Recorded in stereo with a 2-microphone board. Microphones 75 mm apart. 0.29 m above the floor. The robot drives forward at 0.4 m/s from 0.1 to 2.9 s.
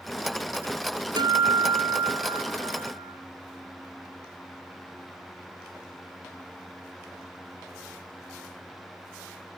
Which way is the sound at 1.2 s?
75° right (ahead or behind).